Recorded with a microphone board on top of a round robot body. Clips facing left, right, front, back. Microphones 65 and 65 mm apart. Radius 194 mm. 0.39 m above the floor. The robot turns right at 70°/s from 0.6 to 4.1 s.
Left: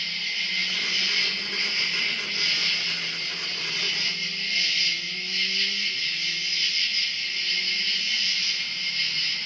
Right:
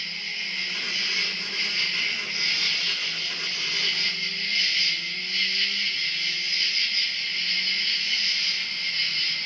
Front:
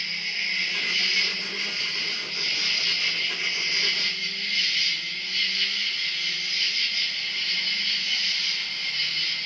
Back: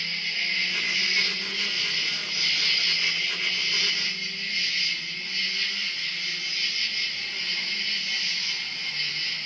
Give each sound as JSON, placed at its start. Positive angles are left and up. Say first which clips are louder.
{"t": 0.0, "sound": "an insect", "louder": "left 2 dB, even", "azimuth_deg": 80, "distance_m": 0.9}